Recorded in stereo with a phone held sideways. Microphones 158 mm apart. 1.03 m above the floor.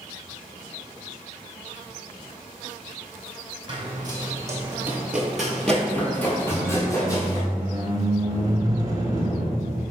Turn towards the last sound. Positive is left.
turn(degrees=-25)  # may be behind; listen again after turning